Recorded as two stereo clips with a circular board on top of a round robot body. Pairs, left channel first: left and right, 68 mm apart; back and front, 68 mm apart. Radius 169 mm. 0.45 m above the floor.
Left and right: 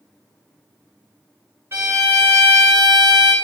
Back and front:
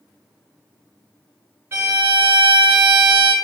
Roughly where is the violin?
Ahead right.